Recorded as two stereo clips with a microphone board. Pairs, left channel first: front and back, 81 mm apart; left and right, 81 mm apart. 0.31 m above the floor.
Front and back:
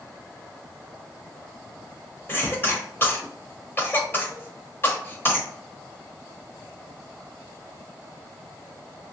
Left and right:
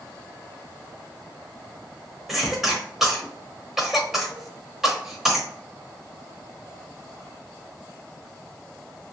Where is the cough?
5° right, 1.1 m.